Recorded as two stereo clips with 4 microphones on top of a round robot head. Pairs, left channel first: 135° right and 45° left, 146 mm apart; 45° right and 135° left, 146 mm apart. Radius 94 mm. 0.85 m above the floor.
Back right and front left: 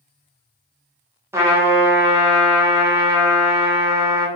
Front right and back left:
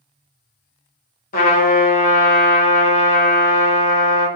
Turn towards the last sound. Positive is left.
turn(degrees=-25)